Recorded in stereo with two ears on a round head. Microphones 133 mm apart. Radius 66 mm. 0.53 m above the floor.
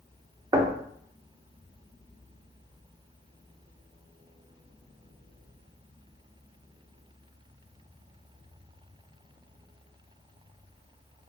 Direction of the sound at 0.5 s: 25° right (ahead or behind).